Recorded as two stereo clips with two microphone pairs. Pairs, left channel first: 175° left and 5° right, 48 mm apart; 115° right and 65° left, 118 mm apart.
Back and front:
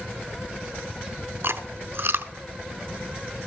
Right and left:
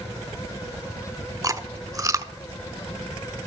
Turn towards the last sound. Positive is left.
turn(degrees=10)